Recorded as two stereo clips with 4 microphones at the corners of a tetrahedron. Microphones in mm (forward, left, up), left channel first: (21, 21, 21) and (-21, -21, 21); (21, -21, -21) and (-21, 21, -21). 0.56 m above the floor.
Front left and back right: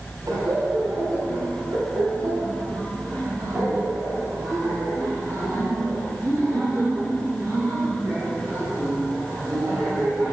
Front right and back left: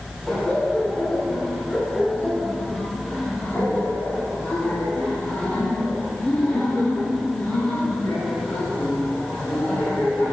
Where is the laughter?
120° right, 4 m; by 10.3 s 85° right, 9.5 m.